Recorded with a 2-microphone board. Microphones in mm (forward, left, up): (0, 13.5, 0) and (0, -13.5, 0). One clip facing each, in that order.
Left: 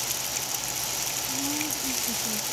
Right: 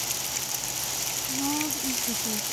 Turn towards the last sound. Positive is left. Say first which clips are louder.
# right 4 dB
turn(degrees=-35)  # may be behind; listen again after turning